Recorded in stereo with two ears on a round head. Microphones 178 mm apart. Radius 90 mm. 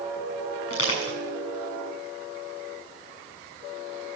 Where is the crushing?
75° left (ahead or behind), 6.5 m.